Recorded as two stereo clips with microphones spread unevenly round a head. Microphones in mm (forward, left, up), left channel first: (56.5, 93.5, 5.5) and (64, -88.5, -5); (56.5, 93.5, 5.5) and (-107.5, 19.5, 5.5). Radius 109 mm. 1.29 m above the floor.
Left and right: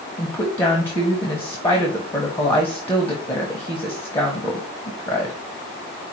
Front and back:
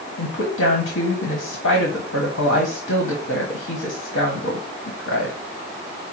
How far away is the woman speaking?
About 1.1 m.